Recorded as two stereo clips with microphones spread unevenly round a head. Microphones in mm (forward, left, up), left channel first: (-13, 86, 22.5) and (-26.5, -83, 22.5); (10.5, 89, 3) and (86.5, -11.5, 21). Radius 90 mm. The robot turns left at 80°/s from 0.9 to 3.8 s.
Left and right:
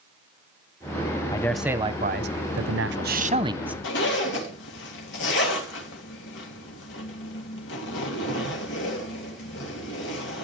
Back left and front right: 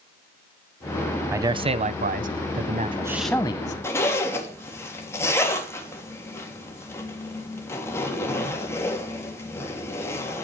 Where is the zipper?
55° left, 3 m.